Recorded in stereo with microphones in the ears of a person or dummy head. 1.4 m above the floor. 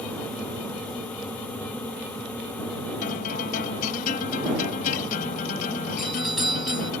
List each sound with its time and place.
3.0 s a guitar: 45° left (ahead or behind)
6.0 s a doorbell: centre (ahead or behind)